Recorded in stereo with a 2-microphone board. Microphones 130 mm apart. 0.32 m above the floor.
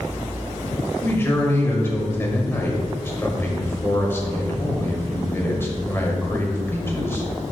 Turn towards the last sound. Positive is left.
turn(degrees=20)  # may be behind; listen again after turning